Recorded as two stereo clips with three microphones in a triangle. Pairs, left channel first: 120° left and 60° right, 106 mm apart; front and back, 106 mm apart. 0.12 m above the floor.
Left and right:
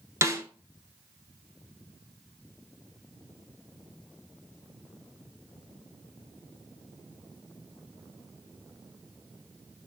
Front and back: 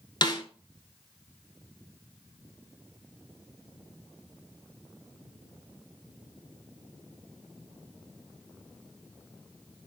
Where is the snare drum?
10° right, 0.7 m.